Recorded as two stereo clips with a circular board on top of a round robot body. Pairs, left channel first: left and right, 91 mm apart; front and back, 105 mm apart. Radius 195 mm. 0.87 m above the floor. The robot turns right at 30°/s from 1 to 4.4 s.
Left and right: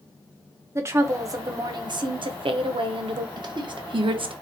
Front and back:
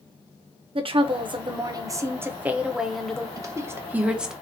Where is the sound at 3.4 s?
125° right, 0.7 m; by 4.3 s 95° right, 0.7 m.